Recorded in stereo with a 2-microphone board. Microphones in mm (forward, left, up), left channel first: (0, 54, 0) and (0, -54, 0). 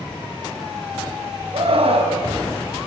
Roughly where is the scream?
Right.